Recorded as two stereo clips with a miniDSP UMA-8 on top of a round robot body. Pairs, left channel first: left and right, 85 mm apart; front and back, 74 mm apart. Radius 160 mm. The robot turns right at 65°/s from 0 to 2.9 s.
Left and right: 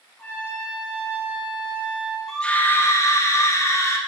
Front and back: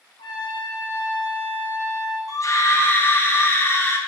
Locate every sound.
0.2 s a trumpet: 15° left, 0.8 m; by 2.2 s 145° left, 0.8 m
2.3 s a scream: 5° left, 0.8 m; by 4.0 s 45° left, 0.8 m